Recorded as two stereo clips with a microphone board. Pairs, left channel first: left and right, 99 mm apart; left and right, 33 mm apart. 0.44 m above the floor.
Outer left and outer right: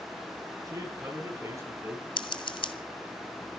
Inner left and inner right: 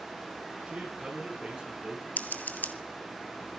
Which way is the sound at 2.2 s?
55° left (ahead or behind).